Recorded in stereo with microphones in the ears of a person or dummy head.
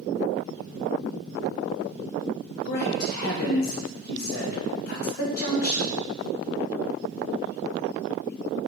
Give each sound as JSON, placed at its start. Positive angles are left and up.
{"t": 2.6, "sound": "a man speaking", "side_deg": 55, "distance_m": 0.6}